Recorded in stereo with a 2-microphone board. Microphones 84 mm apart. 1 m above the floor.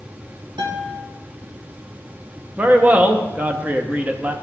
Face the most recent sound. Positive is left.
turn(degrees=-20)  # may be behind; listen again after turning